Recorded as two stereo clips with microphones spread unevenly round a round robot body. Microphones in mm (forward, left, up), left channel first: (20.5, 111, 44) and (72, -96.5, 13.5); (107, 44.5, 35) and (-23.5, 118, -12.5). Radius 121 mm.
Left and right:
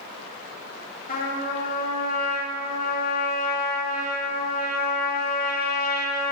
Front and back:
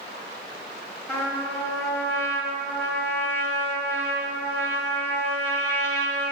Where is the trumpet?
55° left, 3 m.